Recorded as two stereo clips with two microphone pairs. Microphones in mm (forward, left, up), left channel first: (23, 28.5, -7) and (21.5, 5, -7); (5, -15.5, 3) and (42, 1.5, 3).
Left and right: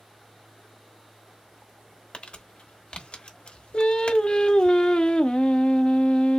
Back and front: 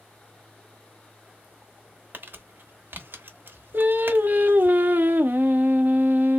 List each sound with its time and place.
2.1 s crumpling: 55° left, 0.8 m
3.7 s singing: 55° left, 0.5 m